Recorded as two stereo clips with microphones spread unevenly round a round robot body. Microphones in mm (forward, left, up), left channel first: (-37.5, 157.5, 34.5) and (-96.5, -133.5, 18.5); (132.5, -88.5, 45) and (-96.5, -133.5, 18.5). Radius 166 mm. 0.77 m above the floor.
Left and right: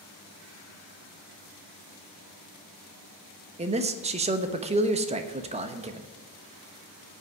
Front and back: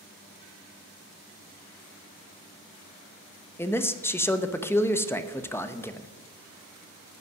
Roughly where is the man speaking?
Right.